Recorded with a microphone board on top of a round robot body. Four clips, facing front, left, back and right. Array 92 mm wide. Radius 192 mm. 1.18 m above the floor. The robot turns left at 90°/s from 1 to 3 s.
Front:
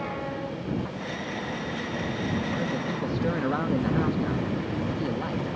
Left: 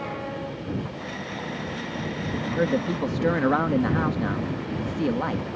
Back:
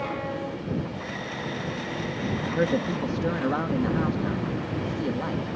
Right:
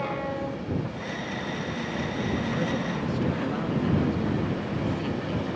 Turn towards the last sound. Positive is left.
turn(degrees=100)